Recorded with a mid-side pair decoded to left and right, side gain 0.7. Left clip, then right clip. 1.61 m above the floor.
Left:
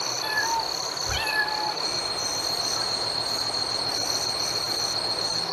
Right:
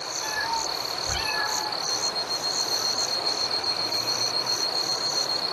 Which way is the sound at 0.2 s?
20° left.